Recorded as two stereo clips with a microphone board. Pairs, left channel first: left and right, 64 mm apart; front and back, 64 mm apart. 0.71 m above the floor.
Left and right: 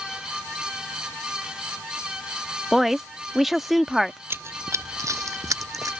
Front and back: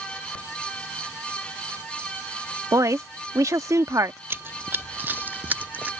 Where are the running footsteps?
135° right; by 5.9 s 120° right.